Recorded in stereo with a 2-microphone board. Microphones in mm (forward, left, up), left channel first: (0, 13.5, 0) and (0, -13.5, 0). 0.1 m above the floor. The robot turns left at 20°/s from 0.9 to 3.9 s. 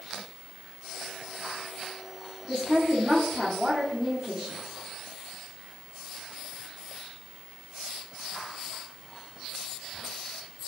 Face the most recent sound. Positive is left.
turn(degrees=-5)  # may be behind; listen again after turning